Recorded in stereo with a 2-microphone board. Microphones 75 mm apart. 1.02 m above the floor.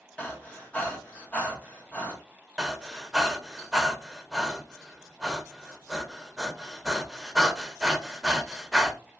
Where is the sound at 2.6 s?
5° right (ahead or behind), 0.6 m.